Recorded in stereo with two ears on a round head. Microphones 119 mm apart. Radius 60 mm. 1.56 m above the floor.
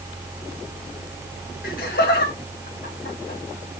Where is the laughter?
70° left (ahead or behind), 1.9 m; by 3.4 s 85° left, 3 m.